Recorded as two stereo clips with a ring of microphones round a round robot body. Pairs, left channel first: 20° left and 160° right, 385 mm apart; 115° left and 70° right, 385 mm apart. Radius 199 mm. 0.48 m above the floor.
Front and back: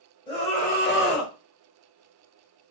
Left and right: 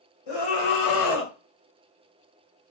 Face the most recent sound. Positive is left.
turn(degrees=45)